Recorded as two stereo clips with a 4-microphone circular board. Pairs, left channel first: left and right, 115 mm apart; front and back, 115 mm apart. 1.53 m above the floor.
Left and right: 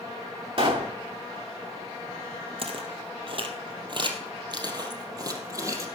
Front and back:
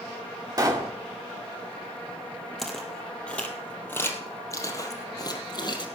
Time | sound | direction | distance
0.6 | a pop | 125° right | 2.5 m
2.6 | footsteps | 85° right | 2.5 m